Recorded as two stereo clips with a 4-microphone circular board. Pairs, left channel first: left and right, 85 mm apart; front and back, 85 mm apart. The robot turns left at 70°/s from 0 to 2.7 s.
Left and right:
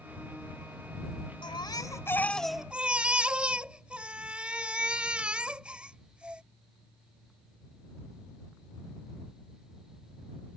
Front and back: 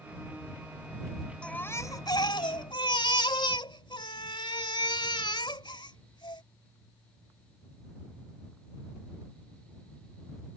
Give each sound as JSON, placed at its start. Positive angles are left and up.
{"t": 1.4, "sound": "a baby crying", "azimuth_deg": 75}